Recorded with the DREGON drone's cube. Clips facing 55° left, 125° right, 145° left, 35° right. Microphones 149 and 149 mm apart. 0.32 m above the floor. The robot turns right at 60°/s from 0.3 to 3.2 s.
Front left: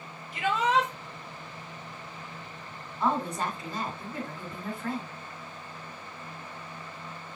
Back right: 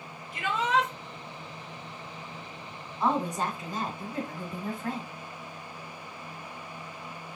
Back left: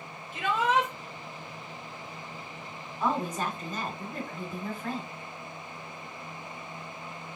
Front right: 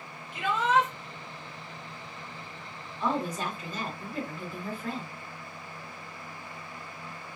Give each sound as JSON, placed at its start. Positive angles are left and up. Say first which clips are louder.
{"t": 0.3, "sound": "a shout", "louder": "front left 2 dB, front right 1 dB", "azimuth_deg": 55, "distance_m": 1.1}
{"t": 3.0, "sound": "a woman speaking", "louder": "back right 1 dB, back left 1 dB", "azimuth_deg": 155, "distance_m": 2.0}